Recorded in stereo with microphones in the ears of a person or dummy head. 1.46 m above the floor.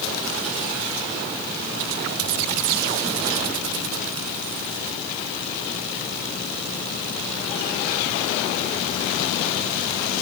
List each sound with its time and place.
Only background noise.